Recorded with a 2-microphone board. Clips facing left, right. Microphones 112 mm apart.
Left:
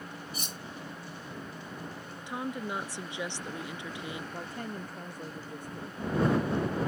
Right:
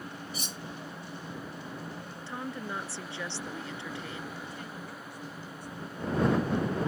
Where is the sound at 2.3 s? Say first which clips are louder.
Left 3 dB; 15° left (ahead or behind).